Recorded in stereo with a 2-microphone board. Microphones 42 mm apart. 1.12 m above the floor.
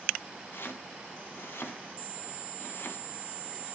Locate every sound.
0.5 s chopping: 60° left (ahead or behind), 1.9 m